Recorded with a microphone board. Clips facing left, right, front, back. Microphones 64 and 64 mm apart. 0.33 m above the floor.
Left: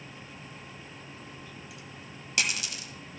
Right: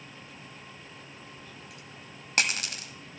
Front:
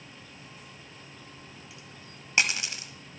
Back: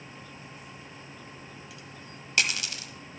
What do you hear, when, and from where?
1.4 s a dropped coin: 60° right, 0.9 m